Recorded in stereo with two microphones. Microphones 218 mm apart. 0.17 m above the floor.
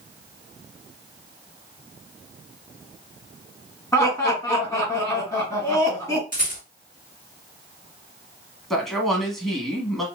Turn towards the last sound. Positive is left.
turn(degrees=0)  # may be behind; listen again after turning